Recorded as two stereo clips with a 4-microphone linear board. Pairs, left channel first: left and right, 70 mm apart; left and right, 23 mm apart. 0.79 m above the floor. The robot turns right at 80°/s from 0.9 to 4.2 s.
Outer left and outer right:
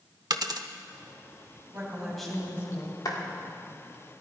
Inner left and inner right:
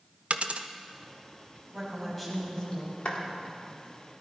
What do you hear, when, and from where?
0.3 s a dropped coin: 70° right (ahead or behind), 0.7 m
1.7 s a woman speaking: 35° right, 4.5 m; by 3.0 s 65° left, 4.5 m
3.0 s a clap: 60° left (ahead or behind), 1.7 m; by 3.2 s 70° left (ahead or behind), 1.7 m